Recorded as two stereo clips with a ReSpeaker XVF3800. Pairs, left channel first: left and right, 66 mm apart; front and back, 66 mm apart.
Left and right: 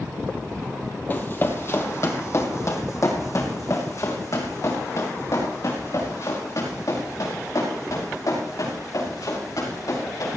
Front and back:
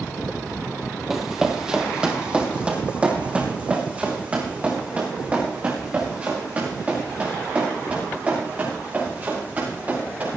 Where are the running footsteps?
100° left, 1.6 m; by 10.4 s 115° left, 8 m.